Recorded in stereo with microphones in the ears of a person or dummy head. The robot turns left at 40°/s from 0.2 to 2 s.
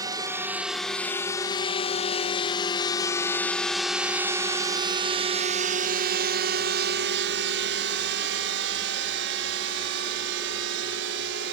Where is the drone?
20° right (ahead or behind); by 11.5 s 65° right (ahead or behind).